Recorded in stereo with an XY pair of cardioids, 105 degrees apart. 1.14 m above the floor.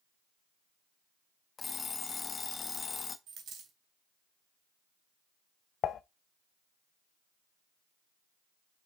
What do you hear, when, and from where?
1.6 s an alarm clock: 40° left, 0.9 m
3.3 s a dropped coin: 70° right, 3 m
5.8 s dishes clattering: 65° left, 0.6 m